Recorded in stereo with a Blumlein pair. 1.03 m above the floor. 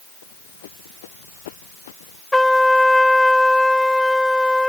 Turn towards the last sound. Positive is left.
turn(degrees=5)